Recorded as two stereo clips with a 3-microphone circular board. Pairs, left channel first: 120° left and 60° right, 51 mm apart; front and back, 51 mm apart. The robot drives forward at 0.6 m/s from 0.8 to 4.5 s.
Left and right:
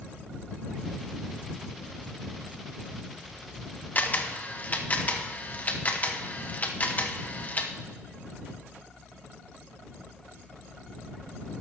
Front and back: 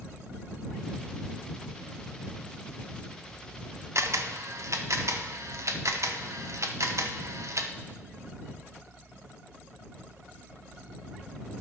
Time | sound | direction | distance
4.0 | a camera shutter | 175° left | 0.6 m